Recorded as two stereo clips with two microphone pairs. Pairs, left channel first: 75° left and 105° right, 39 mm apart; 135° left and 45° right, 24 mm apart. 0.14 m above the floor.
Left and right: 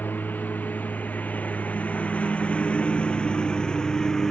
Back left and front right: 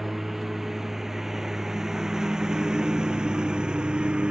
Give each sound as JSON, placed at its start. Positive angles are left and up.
{"t": 0.0, "sound": "a lawn mower", "azimuth_deg": 40}